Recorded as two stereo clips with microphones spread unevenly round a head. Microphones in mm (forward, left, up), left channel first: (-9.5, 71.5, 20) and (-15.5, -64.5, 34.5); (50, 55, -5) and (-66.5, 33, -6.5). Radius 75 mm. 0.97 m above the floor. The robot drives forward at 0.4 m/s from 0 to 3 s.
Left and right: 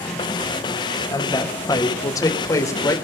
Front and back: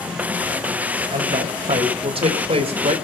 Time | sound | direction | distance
1.1 | a woman speaking | 150° left | 3.5 m